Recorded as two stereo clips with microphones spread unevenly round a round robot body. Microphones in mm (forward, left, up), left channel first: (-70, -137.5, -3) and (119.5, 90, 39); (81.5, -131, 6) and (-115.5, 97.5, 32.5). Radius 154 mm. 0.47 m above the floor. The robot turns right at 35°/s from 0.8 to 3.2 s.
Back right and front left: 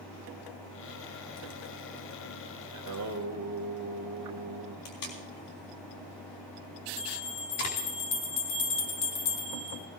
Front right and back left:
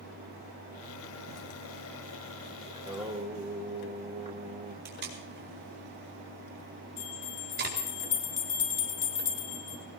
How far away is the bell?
About 3.5 m.